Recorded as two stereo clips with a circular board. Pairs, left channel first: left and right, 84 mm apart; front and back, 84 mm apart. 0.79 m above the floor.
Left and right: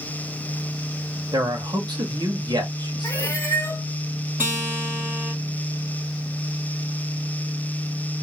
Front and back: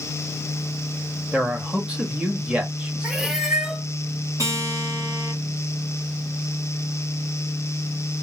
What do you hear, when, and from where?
1.3 s a man speaking: 105° right, 1.1 m
3.0 s a cat meowing: 100° left, 0.7 m
4.4 s a guitar: 150° right, 1.6 m